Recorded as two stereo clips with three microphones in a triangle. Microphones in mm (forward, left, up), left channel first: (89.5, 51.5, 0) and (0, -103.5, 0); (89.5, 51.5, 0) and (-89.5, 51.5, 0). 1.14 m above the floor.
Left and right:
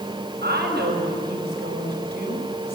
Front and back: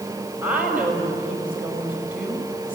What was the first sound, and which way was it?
A woman speaking, 100° right.